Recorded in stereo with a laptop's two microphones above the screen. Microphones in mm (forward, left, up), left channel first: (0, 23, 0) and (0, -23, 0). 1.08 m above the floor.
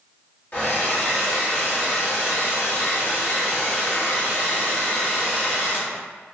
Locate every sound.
0.5 s a hair dryer: 35° left (ahead or behind), 1.4 m